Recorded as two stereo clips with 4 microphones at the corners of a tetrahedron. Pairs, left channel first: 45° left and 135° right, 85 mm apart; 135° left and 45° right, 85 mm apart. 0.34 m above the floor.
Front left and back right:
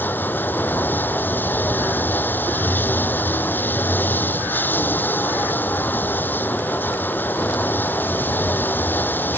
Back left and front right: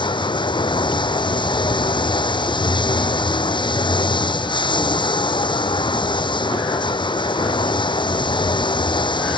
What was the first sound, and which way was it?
Running water, 110° left.